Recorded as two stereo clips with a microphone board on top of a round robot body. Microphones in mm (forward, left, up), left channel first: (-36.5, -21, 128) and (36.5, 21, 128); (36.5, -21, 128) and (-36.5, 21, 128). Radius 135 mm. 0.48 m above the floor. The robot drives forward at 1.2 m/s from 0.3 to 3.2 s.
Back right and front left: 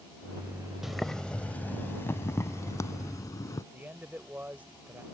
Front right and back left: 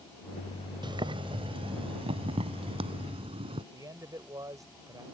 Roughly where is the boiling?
Behind left.